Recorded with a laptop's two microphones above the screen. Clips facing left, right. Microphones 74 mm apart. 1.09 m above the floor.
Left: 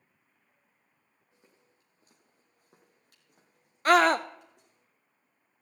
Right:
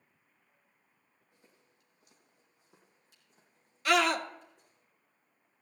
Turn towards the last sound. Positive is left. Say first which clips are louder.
# left 6 dB
turn(degrees=40)  # may be behind; listen again after turning